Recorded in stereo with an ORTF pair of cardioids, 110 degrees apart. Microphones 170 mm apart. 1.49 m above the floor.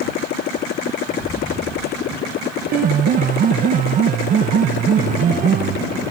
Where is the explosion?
25° left.